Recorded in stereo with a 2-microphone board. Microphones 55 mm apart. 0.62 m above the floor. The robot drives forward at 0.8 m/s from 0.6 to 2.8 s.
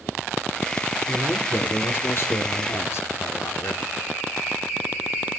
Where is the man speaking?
45° left (ahead or behind), 2.5 m; by 3.9 s 55° left (ahead or behind), 2.0 m.